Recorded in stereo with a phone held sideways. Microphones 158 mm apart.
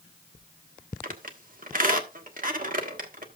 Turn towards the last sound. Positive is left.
turn(degrees=-60)  # may be behind; listen again after turning